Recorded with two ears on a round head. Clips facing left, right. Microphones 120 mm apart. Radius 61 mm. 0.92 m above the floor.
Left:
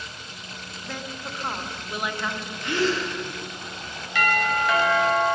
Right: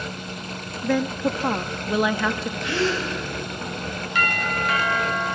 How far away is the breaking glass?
No breaking glass in this recording.